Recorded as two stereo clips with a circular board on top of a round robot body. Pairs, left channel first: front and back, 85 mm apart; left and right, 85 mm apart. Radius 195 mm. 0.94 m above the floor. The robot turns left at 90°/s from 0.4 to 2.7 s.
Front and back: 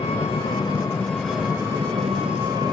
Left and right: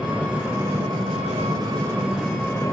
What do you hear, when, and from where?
0.0 s an engine running: 10° right, 0.7 m; by 2.7 s 140° left, 0.7 m